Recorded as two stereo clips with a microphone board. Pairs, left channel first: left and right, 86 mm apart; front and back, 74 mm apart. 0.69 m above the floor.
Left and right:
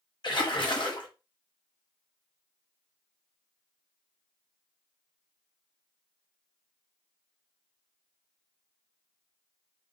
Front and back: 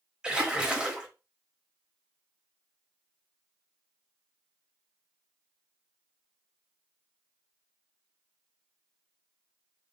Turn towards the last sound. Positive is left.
turn(degrees=105)